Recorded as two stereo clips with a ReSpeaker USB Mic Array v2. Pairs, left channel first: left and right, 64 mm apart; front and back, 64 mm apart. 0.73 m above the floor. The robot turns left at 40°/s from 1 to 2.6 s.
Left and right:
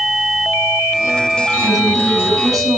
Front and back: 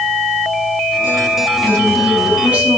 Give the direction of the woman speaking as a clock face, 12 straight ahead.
2 o'clock.